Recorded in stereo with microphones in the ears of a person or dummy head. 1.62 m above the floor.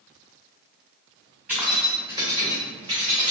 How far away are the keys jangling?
About 1.8 m.